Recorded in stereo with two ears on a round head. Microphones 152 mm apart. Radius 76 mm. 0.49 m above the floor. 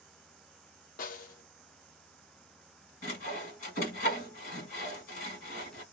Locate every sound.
1.0 s a snare drum: 50° left (ahead or behind), 0.7 m
3.0 s sawing: 55° left (ahead or behind), 1.7 m